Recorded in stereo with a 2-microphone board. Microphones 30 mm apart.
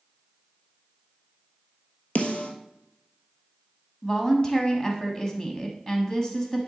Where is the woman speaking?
20° left (ahead or behind), 1.0 m.